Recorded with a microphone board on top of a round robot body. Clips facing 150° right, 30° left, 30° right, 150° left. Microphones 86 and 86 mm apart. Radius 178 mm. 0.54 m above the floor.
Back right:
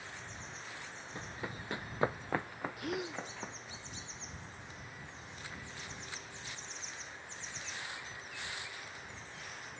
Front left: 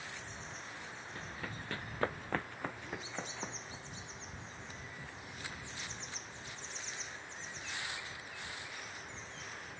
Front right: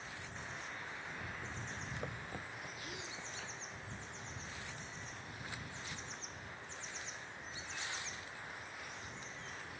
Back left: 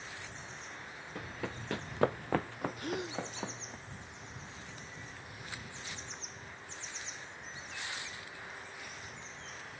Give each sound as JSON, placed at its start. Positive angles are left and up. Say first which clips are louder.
{"t": 1.1, "sound": "running footsteps", "louder": "back right 3 dB, back left 4 dB", "azimuth_deg": 140}
{"t": 2.8, "sound": "a gasp", "louder": "back right 5 dB, back left 10 dB", "azimuth_deg": -170}